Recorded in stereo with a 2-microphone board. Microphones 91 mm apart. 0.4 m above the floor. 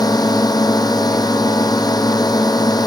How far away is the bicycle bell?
I don't hear a bicycle bell.